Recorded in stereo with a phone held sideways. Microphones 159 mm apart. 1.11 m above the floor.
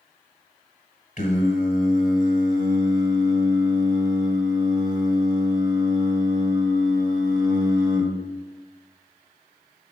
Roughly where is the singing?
Left.